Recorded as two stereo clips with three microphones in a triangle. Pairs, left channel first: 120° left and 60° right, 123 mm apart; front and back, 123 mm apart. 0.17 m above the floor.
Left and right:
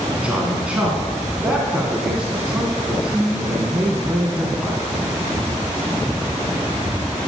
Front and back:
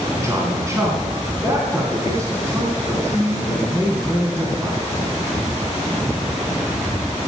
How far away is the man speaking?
About 1.9 m.